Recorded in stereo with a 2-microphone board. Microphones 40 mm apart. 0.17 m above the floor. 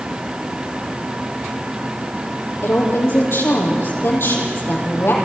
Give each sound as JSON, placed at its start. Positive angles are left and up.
{"t": 2.6, "sound": "a woman speaking", "side_deg": 75, "distance_m": 5.0}